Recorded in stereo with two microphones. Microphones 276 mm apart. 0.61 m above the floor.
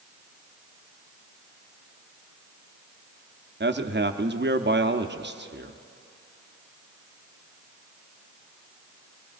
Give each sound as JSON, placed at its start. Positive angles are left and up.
{"t": 3.6, "sound": "a man speaking", "side_deg": -40, "distance_m": 0.7}